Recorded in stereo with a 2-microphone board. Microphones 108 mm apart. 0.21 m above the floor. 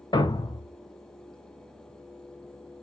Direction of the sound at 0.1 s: 40° left (ahead or behind).